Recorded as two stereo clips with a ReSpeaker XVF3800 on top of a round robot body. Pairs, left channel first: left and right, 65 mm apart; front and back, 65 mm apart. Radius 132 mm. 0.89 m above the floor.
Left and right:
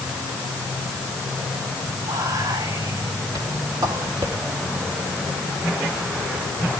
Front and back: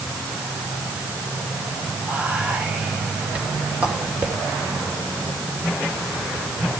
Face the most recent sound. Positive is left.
turn(degrees=-110)